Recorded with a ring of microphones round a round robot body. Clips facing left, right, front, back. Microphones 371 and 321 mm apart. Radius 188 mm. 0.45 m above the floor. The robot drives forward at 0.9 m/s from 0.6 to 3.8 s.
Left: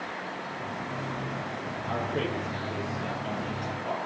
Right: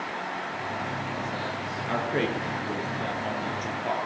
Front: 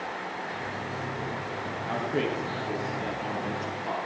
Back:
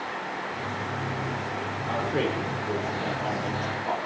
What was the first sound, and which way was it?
A man speaking, 75° right.